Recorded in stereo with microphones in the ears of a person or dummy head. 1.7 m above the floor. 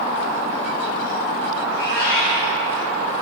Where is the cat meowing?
60° left (ahead or behind), 3 m.